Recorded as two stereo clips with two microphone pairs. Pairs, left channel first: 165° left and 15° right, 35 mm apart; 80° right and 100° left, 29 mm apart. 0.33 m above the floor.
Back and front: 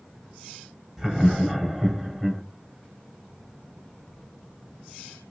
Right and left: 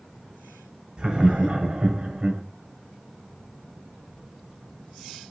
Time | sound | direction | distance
1.0 | laughter | 55° left | 1.4 m